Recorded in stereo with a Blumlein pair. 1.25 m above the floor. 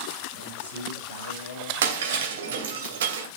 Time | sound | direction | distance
0.3 | a man speaking | 70° left | 7 m
1.8 | breaking glass | 60° right | 2.5 m